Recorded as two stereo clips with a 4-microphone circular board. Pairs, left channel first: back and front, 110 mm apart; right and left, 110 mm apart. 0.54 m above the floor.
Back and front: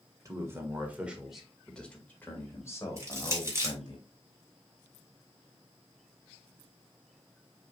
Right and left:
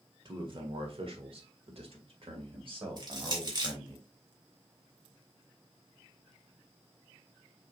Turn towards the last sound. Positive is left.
turn(degrees=55)